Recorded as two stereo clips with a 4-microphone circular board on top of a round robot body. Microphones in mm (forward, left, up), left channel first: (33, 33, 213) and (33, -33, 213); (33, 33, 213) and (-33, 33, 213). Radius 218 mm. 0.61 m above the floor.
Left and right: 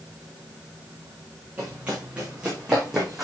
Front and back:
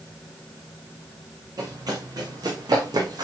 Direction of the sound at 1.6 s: 160° right.